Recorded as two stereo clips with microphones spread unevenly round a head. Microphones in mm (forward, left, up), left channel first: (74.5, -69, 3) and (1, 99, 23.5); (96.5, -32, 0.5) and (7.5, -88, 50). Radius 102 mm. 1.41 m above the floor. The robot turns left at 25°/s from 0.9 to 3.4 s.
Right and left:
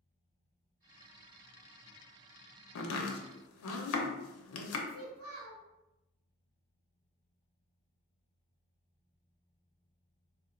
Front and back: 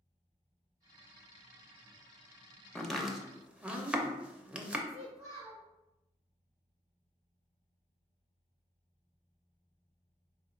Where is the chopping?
60° right, 0.6 m; by 4.8 s 75° right, 0.6 m.